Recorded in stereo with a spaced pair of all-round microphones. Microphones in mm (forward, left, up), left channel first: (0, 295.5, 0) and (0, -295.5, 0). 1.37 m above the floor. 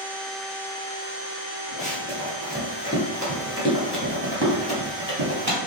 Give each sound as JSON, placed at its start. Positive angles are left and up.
{"t": 1.8, "sound": "running footsteps", "side_deg": 15, "distance_m": 1.7}